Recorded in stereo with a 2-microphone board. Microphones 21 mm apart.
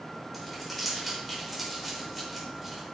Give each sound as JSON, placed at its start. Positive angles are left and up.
{"t": 0.3, "sound": "crumpling", "side_deg": -5, "distance_m": 4.5}